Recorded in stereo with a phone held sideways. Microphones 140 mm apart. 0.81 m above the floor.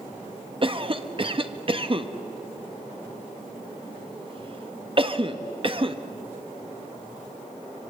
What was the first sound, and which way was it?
A cough, 40° right (ahead or behind).